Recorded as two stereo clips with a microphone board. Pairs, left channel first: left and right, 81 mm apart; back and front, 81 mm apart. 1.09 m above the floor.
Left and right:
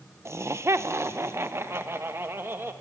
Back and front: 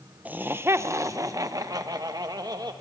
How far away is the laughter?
About 0.7 m.